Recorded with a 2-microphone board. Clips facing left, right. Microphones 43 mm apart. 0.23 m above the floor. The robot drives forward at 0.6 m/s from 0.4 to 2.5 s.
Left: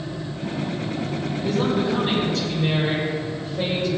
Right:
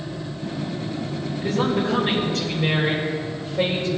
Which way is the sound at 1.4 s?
45° right (ahead or behind).